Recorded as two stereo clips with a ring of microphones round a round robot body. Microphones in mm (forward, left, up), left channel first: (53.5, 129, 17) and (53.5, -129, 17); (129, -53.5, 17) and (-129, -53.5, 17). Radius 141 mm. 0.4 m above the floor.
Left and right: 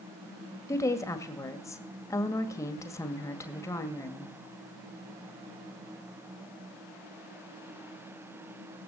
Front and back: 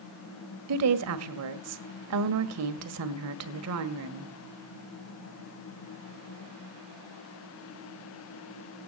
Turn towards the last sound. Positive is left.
turn(degrees=170)